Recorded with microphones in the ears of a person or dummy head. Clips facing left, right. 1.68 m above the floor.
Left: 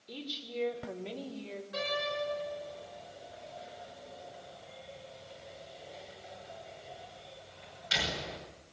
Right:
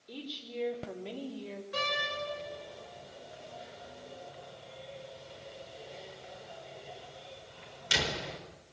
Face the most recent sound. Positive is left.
turn(degrees=-55)  # may be behind; listen again after turning